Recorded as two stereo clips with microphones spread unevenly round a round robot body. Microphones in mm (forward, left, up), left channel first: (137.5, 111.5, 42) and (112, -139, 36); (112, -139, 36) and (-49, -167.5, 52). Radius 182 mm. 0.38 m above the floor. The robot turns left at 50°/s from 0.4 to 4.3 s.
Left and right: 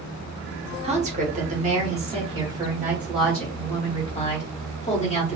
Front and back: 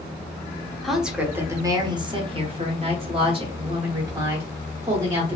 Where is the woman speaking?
65° right, 0.9 m; by 5.4 s 120° left, 0.9 m.